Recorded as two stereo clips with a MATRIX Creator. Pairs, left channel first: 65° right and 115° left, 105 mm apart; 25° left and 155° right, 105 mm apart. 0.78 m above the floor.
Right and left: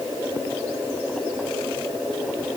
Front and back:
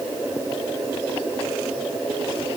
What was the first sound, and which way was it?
Only background noise.